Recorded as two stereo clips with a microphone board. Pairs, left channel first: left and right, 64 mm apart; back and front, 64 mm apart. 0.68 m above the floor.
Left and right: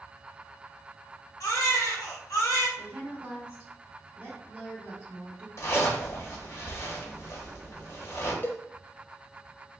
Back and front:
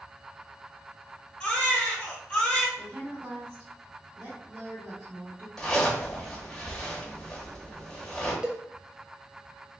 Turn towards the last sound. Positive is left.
turn(degrees=65)